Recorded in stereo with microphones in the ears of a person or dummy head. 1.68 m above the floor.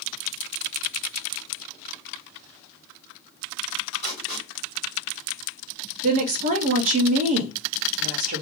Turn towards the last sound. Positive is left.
turn(degrees=-35)  # may be behind; listen again after turning